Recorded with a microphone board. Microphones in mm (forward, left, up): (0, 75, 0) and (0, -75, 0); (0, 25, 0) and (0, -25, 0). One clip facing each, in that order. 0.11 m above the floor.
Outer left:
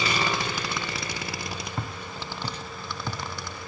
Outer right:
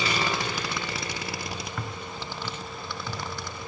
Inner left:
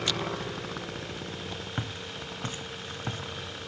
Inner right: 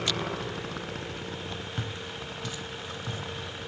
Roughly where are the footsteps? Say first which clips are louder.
Even, even; left.